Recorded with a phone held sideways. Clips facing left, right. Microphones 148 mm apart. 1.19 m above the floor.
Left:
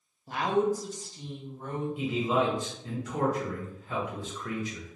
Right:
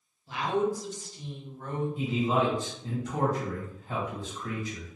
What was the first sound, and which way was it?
A woman speaking, 50° left (ahead or behind).